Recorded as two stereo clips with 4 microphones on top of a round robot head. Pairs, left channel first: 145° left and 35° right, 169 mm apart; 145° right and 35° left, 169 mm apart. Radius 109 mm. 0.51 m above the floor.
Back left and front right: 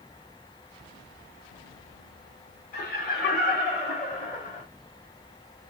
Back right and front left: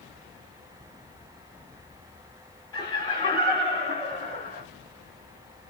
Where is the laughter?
150° left, 2.5 m; by 4.6 s straight behind, 1.8 m.